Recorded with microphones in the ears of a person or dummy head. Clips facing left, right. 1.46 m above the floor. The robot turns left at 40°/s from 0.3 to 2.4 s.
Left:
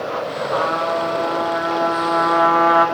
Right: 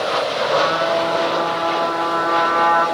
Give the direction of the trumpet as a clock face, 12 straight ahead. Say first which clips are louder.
Right 2 dB; 5 o'clock.